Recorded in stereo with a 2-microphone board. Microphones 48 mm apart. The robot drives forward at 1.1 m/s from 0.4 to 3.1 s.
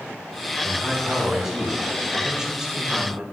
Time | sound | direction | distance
0.6 | a man speaking | 5° right (ahead or behind) | 4 m